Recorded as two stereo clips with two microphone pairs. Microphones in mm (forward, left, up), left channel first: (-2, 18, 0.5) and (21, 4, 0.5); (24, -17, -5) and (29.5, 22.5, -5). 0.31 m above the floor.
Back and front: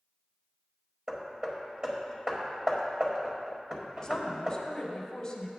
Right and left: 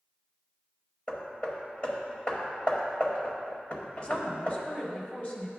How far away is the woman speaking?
About 1.5 m.